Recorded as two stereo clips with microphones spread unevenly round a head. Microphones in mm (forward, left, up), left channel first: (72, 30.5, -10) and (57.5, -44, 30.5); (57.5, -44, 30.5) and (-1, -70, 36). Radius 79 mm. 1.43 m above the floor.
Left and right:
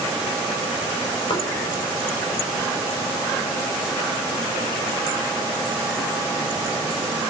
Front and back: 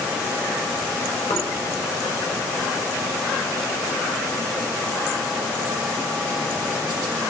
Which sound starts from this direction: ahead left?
Knocking, at 1.3 s.